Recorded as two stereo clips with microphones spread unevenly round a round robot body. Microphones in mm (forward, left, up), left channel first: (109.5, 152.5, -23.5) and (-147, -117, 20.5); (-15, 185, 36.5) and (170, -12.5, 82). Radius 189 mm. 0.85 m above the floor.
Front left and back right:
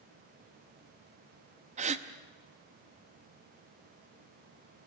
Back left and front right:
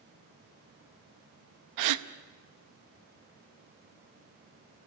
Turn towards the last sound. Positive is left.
turn(degrees=-60)